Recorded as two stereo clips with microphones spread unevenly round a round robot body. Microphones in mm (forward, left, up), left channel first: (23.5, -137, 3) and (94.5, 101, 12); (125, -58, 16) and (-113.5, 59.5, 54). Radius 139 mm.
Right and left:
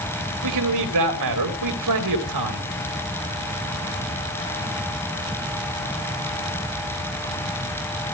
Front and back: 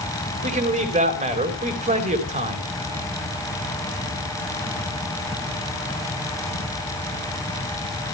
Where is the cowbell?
No cowbell in this recording.